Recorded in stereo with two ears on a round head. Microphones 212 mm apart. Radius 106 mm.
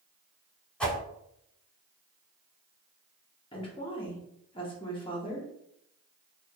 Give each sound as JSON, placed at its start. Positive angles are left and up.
{"t": 0.8, "sound": "a whoosh", "side_deg": 5, "distance_m": 0.9}
{"t": 3.5, "sound": "a woman speaking", "side_deg": 20, "distance_m": 0.7}